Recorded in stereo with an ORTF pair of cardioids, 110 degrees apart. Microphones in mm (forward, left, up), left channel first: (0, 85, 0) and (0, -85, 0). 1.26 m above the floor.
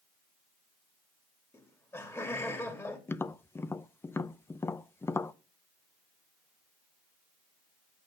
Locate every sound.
1.5 s laughter: 10° left, 2.5 m
3.1 s tapping: 15° left, 0.5 m